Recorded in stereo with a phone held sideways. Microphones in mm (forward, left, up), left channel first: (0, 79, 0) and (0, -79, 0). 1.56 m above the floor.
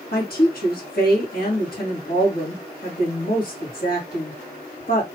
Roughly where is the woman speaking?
Left.